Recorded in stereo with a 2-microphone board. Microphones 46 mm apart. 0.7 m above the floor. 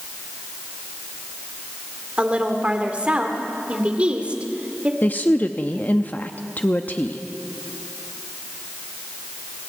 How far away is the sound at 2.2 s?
About 2.5 m.